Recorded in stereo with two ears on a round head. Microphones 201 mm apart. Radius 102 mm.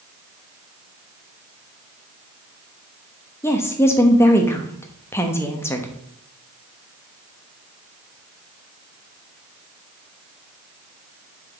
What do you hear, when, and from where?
3.4 s a woman speaking: 10° left (ahead or behind), 0.8 m